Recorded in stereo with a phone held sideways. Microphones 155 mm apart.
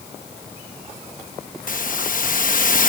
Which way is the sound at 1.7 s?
60° left (ahead or behind).